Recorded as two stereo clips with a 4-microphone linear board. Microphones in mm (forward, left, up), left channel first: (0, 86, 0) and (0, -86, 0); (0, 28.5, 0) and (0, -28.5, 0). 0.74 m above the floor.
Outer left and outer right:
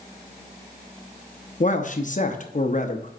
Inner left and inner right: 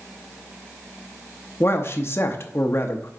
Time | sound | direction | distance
1.6 | a man speaking | 50° left (ahead or behind) | 0.7 m